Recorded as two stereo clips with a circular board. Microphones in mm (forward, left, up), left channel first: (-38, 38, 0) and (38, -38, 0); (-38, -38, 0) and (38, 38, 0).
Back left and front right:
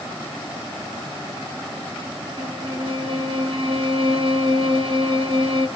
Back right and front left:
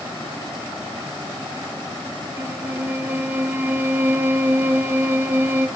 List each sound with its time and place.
2.4 s a violin: 20° right, 0.6 m